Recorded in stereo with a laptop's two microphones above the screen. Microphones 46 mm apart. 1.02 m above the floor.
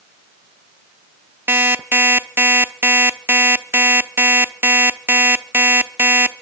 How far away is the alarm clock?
About 0.8 m.